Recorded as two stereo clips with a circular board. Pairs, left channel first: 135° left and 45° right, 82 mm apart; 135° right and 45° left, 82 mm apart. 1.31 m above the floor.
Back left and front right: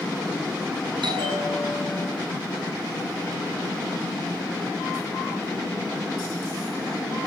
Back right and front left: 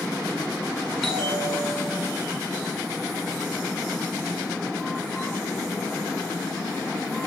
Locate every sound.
1.0 s a bell: 45° right, 8 m